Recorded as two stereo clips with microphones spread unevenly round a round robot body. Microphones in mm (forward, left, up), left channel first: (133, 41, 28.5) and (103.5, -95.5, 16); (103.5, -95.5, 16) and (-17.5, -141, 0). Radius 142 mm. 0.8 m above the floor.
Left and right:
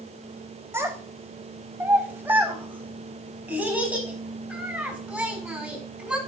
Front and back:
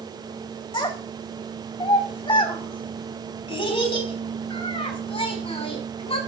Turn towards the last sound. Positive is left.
turn(degrees=-20)